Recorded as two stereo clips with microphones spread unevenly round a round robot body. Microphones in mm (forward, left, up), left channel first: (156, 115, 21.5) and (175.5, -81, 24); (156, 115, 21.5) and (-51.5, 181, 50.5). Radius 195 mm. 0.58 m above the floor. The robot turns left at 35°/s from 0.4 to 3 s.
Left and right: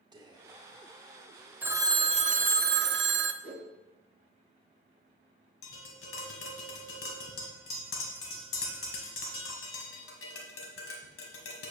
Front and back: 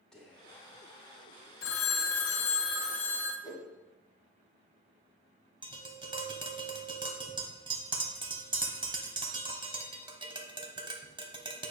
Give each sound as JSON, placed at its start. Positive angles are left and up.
{"t": 0.1, "sound": "whispering", "azimuth_deg": -75, "distance_m": 1.1}
{"t": 1.6, "sound": "a phone ringing", "azimuth_deg": 0, "distance_m": 0.6}
{"t": 3.4, "sound": "a whoosh", "azimuth_deg": 55, "distance_m": 3.5}
{"t": 5.6, "sound": "tapping", "azimuth_deg": 95, "distance_m": 1.4}